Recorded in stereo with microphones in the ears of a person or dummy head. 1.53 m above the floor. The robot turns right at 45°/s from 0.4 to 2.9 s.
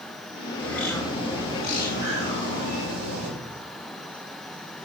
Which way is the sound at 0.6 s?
170° left.